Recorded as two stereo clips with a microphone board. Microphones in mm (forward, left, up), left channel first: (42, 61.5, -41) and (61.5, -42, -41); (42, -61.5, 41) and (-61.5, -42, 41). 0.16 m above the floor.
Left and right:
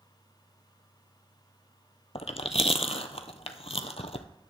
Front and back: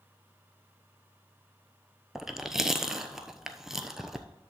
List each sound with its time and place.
2.1 s chewing: 85° left, 0.6 m